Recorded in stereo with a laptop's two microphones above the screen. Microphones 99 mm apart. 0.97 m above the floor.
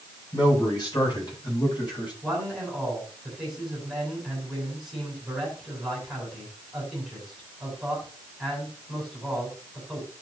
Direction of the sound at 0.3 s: 40° left (ahead or behind).